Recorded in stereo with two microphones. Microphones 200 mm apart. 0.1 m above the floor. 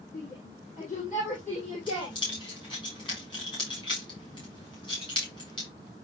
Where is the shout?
45° left (ahead or behind), 5.5 m; by 2.2 s 30° left (ahead or behind), 3 m.